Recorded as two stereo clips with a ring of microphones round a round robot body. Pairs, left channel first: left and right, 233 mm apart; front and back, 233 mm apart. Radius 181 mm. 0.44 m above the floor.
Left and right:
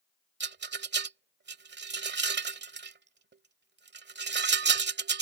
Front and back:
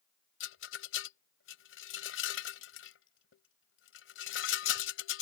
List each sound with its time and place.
0.4 s a rattle: 45° right